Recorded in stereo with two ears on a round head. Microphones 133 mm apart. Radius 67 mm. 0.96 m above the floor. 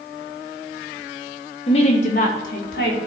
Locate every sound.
1.7 s a woman speaking: 40° left (ahead or behind), 1.2 m; by 3.0 s 70° left (ahead or behind), 1.9 m